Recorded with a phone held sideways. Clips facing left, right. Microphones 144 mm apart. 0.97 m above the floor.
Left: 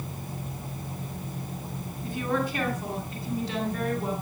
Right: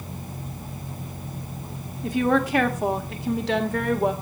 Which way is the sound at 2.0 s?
80° right.